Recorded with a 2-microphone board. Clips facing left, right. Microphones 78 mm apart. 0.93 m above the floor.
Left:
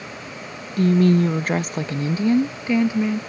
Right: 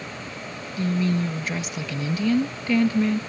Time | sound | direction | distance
0.8 | a woman speaking | 60° left (ahead or behind) | ?